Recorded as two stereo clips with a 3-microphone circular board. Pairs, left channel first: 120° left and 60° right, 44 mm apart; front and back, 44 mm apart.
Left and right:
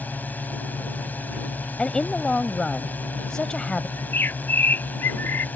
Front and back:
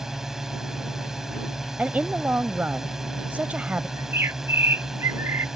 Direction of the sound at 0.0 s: 105° left.